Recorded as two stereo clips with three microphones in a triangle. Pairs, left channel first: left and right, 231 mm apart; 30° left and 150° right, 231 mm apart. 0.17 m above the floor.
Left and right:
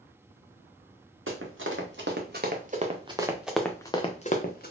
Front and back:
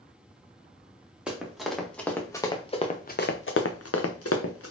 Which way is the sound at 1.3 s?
65° right.